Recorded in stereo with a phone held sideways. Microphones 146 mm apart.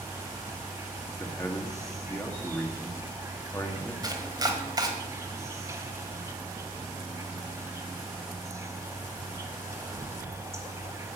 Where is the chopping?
25° right (ahead or behind), 1.4 m.